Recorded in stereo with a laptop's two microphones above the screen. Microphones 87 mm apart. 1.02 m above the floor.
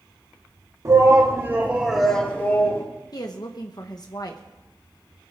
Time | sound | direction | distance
0.8 | a shout | 40° right (ahead or behind) | 2.5 m
3.1 | a woman speaking | 50° left (ahead or behind) | 1.1 m